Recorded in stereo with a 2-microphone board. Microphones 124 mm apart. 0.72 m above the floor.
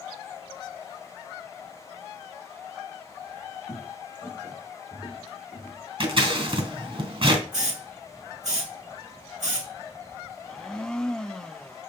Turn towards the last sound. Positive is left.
turn(degrees=5)  # may be behind; listen again after turning